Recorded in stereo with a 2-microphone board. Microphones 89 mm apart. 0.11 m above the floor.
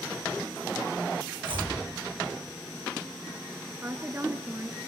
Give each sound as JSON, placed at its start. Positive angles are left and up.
{"t": 1.4, "sound": "chopping", "side_deg": -75, "distance_m": 3.0}
{"t": 3.8, "sound": "a woman speaking", "side_deg": -25, "distance_m": 1.1}